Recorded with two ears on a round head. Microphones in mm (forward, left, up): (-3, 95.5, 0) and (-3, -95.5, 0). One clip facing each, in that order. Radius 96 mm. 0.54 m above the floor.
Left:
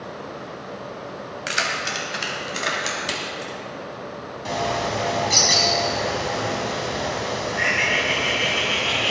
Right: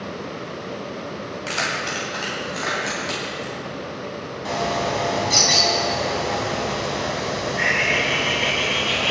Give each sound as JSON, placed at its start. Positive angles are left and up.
{"t": 1.5, "sound": "keys jangling", "side_deg": 25, "distance_m": 2.5}
{"t": 4.5, "sound": "a bird", "side_deg": 5, "distance_m": 2.5}